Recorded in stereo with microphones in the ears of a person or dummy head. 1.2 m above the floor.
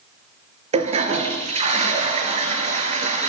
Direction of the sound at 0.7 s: 35° right (ahead or behind).